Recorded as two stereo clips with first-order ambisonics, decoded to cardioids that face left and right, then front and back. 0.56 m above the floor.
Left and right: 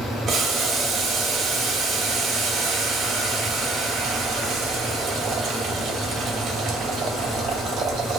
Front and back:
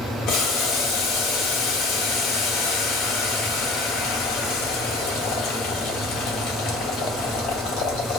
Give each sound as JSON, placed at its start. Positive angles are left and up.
{"t": 0.3, "sound": "boiling", "azimuth_deg": -35, "distance_m": 1.8}